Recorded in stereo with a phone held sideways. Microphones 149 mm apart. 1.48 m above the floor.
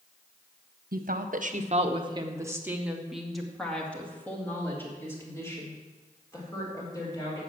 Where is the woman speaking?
75° right (ahead or behind), 1.1 m; by 7.4 s 25° left (ahead or behind), 4.5 m.